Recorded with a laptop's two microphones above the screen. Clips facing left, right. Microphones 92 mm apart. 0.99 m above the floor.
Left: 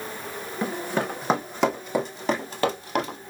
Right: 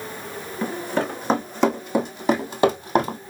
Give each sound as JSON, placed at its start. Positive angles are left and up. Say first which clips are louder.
{"t": 0.6, "sound": "running footsteps", "louder": "right 2 dB", "side_deg": 15, "distance_m": 2.5}